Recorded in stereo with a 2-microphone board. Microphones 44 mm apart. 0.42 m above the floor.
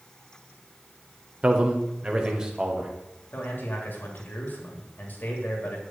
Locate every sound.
1.4 s a man speaking: 30° right (ahead or behind), 0.9 m; by 2.9 s 15° right (ahead or behind), 1.6 m
3.3 s a man speaking: 50° left (ahead or behind), 2 m